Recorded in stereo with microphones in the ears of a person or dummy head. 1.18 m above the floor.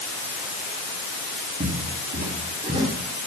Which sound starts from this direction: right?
Footsteps, at 1.6 s.